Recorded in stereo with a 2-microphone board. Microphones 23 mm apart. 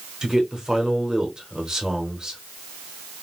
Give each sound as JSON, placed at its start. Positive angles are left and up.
{"t": 0.2, "sound": "a man speaking", "side_deg": -30, "distance_m": 1.0}